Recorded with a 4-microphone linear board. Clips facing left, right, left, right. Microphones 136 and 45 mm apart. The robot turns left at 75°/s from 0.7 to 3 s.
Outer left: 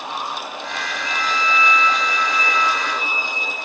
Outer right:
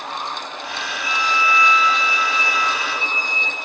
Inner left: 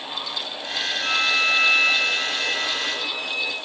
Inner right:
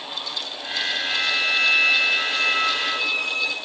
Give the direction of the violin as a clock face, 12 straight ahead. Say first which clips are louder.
Outer right 2 dB, inner left 4 dB; 10 o'clock.